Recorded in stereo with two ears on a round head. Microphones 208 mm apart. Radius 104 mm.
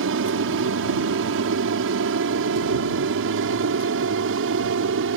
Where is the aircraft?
60° right (ahead or behind).